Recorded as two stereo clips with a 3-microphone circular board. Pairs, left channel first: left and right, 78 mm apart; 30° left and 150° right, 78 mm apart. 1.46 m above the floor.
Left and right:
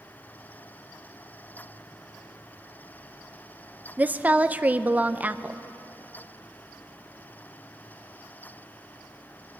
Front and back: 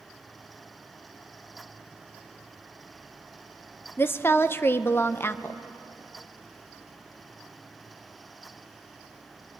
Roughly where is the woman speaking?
Ahead right.